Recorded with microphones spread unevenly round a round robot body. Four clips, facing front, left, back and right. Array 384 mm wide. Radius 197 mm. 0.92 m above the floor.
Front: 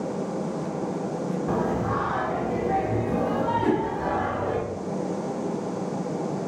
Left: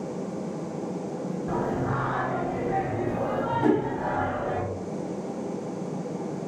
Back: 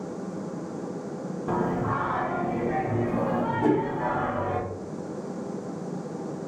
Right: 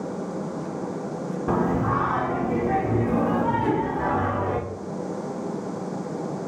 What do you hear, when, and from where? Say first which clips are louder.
1.5 s singing: right 6 dB, back 1 dB; 80° right, 0.5 m
3.6 s a whoosh: left 1 dB, back 3 dB; 140° left, 1.5 m